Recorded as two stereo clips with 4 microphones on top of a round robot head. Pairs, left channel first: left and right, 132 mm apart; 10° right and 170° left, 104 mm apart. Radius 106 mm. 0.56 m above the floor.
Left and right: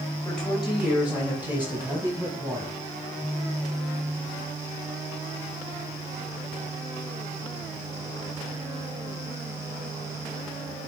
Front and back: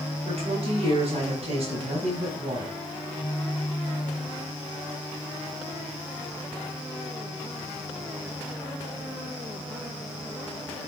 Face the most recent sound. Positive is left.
turn(degrees=-155)